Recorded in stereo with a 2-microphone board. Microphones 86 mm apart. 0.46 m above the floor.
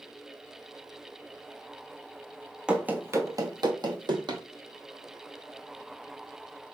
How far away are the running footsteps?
About 0.6 m.